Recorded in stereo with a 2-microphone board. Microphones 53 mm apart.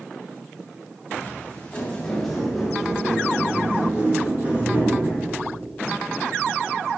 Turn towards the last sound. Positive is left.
turn(degrees=-35)  # may be behind; listen again after turning